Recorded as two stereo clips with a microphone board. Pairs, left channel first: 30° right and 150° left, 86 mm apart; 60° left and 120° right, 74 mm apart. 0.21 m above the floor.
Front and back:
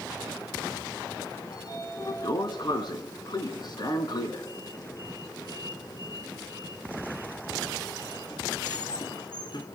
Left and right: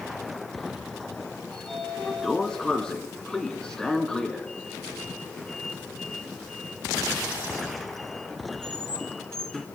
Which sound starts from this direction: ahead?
A sliding door, at 1.5 s.